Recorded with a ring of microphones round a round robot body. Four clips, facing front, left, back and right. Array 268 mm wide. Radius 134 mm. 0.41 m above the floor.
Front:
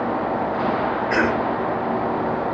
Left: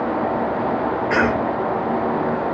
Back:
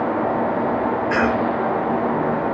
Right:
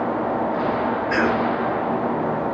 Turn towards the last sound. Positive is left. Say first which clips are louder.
# left 2 dB, back 1 dB
turn(degrees=135)